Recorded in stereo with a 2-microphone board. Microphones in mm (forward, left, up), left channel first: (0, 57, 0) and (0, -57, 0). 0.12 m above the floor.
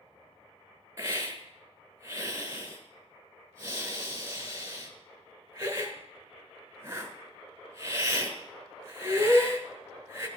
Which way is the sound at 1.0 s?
25° right (ahead or behind).